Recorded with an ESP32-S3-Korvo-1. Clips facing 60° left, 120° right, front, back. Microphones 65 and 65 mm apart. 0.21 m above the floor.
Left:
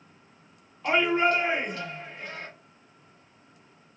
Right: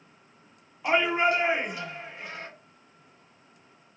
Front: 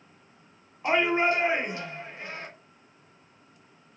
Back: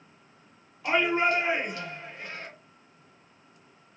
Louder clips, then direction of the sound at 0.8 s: Even, front 1 dB; 45° right.